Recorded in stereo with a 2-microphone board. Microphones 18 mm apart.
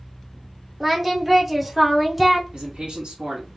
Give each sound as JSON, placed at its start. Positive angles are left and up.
{"t": 0.8, "sound": "singing", "side_deg": -15, "distance_m": 0.8}
{"t": 2.5, "sound": "a man speaking", "side_deg": -80, "distance_m": 1.7}